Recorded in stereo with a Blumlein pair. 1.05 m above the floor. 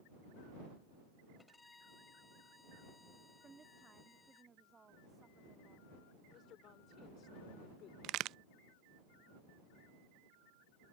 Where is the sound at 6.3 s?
30° left.